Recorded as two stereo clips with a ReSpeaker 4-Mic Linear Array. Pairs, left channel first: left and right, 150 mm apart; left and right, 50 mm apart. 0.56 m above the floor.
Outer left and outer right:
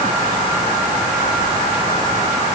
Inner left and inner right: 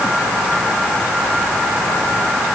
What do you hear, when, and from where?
Only background noise.